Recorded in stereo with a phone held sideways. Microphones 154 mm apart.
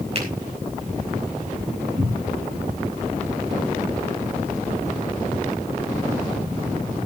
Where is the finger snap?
40° right (ahead or behind), 5.5 m.